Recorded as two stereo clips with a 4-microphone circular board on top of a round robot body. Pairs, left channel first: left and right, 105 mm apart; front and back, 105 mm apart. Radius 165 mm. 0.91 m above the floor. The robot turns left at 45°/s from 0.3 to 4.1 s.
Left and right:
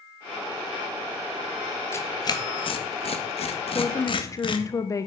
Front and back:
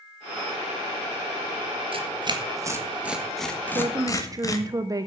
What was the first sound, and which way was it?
Tearing paper, 155° left.